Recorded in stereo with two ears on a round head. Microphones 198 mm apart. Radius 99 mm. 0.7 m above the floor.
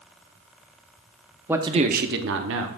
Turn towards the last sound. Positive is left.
turn(degrees=-70)  # may be behind; listen again after turning